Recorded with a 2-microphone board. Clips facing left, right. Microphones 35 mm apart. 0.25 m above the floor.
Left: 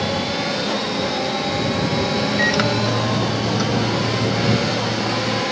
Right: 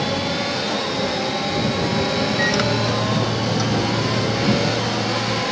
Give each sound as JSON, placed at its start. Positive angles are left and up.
{"t": 2.4, "sound": "a microwave", "side_deg": 5}